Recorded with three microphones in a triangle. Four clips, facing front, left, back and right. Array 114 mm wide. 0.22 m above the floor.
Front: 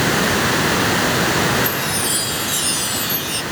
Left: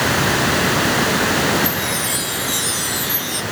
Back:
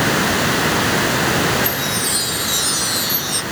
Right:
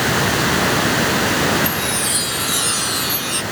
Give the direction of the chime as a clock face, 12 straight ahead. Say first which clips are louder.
Even, even; 3 o'clock.